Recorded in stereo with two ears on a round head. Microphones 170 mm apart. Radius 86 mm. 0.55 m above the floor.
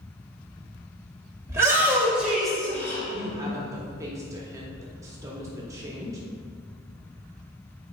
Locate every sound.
1.5 s a shout: 15° right (ahead or behind), 2 m; by 3.0 s 15° left (ahead or behind), 1.3 m
3.1 s a woman speaking: 15° right (ahead or behind), 0.9 m